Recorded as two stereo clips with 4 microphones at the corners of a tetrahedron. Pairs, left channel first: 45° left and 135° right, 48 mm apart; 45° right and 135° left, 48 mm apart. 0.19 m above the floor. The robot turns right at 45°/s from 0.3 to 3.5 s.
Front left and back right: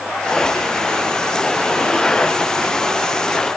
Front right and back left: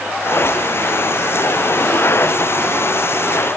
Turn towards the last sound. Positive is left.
No sound to turn to.